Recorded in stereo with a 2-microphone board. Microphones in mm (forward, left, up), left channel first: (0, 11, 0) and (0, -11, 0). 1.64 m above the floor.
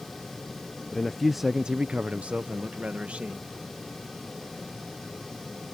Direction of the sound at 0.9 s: 20° left (ahead or behind).